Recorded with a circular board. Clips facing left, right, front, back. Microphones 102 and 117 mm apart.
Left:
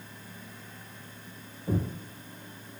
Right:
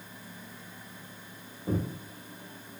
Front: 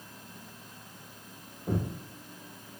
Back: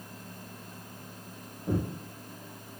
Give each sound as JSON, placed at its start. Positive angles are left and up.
{"t": 1.7, "sound": "footsteps", "azimuth_deg": -90, "distance_m": 1.4}